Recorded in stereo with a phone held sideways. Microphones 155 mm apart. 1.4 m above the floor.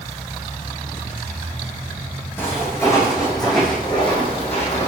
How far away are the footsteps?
About 3.5 m.